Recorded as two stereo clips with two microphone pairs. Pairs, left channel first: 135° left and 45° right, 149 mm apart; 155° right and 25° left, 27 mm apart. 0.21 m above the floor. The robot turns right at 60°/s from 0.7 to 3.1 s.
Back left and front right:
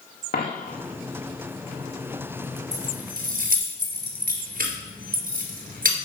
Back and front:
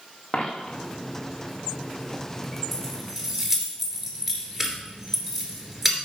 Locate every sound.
0.3 s a dropped coin: 145° left, 1.9 m; by 0.8 s 150° left, 1.9 m
2.7 s keys jangling: 85° right, 2.5 m; by 6.0 s 60° right, 2.5 m